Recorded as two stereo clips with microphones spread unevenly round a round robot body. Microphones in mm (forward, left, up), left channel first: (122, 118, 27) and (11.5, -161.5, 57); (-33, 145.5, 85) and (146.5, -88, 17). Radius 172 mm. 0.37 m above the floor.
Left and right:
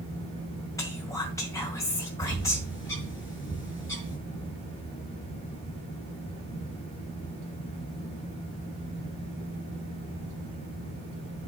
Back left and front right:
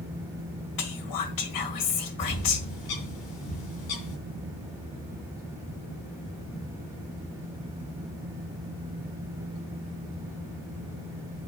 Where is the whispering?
145° left, 2 m.